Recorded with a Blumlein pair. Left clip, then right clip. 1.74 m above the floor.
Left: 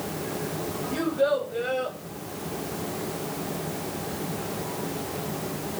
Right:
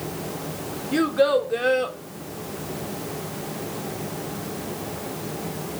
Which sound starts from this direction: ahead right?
A child speaking, at 0.9 s.